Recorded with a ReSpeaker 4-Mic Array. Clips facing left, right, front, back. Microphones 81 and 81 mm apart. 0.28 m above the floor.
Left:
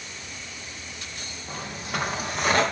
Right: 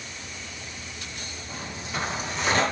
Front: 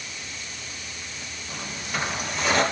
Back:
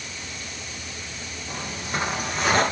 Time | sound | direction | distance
1.5 | footsteps | 125° left | 3.5 m